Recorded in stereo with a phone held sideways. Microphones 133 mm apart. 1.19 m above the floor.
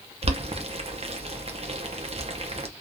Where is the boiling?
50° right (ahead or behind), 0.6 m.